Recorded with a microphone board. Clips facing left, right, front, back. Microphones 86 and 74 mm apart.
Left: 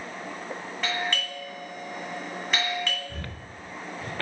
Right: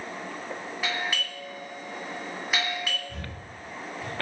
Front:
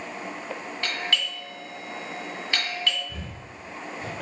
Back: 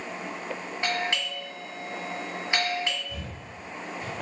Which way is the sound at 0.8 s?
160° right.